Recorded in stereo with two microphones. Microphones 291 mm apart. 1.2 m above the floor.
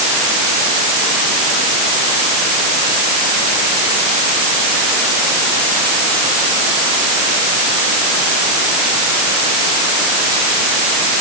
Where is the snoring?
I don't hear snoring.